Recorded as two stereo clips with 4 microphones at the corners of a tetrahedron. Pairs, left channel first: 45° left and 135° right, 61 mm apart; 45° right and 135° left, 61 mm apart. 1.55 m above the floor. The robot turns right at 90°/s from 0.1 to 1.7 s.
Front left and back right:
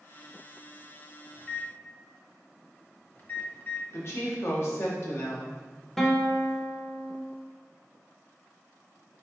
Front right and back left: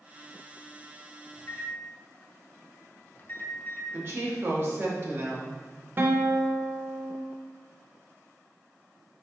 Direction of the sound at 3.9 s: 90° left.